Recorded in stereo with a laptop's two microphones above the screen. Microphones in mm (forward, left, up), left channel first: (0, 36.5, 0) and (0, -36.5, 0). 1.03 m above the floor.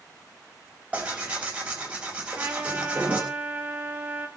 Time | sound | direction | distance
0.9 | tearing paper | 20° right (ahead or behind) | 5 m
2.4 | a trumpet | 25° right (ahead or behind) | 3 m